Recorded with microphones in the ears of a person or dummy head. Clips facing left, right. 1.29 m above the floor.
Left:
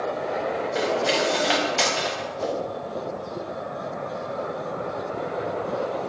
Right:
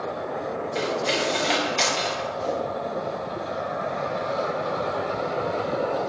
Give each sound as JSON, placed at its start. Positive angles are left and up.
{"t": 0.8, "sound": "cutlery clinking", "side_deg": 5, "distance_m": 0.5}
{"t": 2.4, "sound": "a whoosh", "side_deg": 50, "distance_m": 0.7}